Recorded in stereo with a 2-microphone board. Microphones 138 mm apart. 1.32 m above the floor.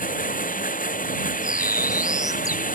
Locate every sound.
0.0 s running water: 80° left
1.4 s a bird: 25° left (ahead or behind)